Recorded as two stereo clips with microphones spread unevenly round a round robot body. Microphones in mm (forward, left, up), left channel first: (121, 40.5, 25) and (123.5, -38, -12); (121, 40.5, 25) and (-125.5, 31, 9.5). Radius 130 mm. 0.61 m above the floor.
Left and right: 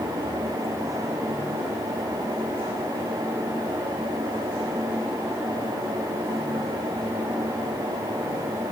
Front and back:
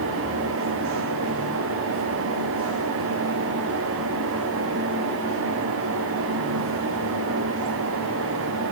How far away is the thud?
I don't hear a thud.